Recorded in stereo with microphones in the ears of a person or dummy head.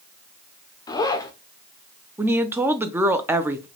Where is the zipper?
10° left (ahead or behind), 0.7 m.